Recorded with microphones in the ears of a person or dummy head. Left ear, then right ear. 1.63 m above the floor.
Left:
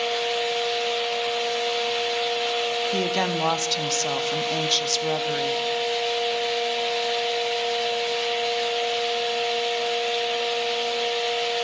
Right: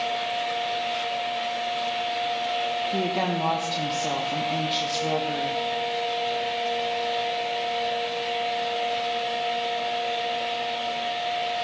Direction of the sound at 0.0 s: 65° left (ahead or behind).